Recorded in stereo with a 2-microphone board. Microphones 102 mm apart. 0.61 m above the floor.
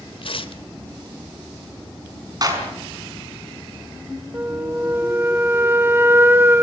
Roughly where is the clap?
Right.